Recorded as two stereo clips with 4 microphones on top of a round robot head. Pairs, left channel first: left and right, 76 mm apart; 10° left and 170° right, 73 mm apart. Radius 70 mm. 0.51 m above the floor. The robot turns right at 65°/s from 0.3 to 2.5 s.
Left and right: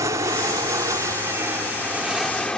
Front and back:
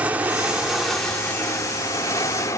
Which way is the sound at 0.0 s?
105° right.